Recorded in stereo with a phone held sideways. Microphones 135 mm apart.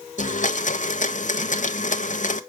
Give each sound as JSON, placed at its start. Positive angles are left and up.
{"t": 0.2, "sound": "a blender", "side_deg": 70, "distance_m": 0.6}